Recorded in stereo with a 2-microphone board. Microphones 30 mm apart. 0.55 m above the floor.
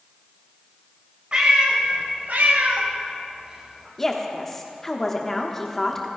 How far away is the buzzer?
I don't hear a buzzer.